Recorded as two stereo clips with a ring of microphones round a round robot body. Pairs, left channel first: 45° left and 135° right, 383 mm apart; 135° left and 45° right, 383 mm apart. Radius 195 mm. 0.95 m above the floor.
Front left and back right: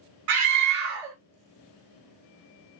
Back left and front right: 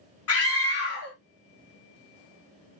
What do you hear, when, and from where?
0.3 s a scream: 175° right, 1.8 m